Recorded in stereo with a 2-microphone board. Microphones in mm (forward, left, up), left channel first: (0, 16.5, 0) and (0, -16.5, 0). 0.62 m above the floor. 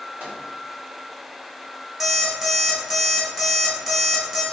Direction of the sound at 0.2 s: 65° right (ahead or behind).